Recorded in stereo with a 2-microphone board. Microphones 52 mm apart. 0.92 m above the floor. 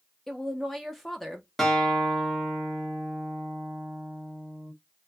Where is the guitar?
5° left (ahead or behind), 1.0 m.